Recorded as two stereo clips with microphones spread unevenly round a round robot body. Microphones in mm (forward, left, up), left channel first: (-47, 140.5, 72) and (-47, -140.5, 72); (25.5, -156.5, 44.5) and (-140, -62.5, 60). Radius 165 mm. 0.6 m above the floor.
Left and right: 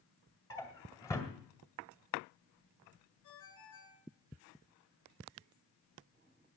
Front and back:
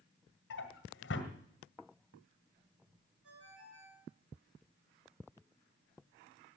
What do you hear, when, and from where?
0.5 s a drawer: 10° left, 1.9 m
3.2 s a ringtone: 105° left, 7 m